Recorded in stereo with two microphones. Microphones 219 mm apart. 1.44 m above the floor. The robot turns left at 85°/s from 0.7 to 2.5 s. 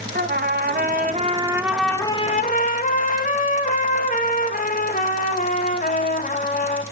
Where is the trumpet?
90° right, 0.8 m; by 6.8 s 120° left, 0.8 m.